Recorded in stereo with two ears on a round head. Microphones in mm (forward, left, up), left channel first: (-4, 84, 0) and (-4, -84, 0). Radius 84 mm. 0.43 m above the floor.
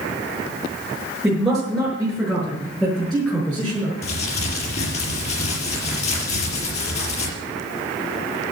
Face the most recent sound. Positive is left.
turn(degrees=40)  # may be behind; listen again after turning